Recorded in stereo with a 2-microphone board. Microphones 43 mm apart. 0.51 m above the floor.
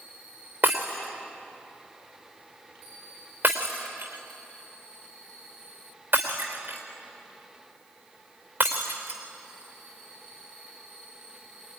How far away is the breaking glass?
About 3 m.